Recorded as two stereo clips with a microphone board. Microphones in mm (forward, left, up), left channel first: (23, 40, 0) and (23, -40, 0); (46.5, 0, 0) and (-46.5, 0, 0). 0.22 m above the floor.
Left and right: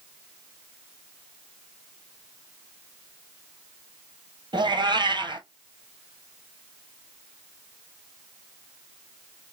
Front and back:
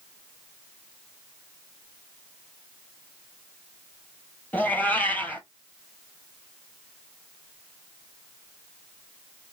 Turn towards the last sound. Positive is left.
turn(degrees=-75)